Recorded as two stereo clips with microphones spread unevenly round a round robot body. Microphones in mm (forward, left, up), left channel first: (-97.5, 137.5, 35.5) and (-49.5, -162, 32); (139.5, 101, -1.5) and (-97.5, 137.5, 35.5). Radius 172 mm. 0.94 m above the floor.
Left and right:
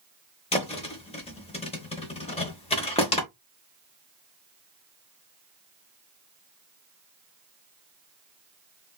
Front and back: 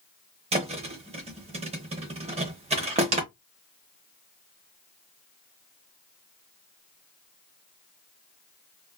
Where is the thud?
155° left, 0.8 m.